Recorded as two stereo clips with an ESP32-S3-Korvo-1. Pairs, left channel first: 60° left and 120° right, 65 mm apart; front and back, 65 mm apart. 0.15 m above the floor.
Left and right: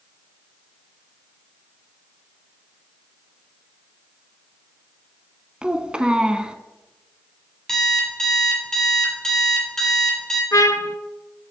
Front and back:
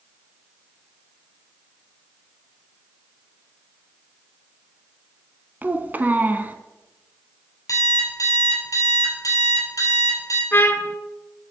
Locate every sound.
5.6 s a child speaking: straight behind, 0.6 m
7.7 s an alarm clock: 20° right, 2.5 m
10.5 s a trumpet: 50° left, 0.5 m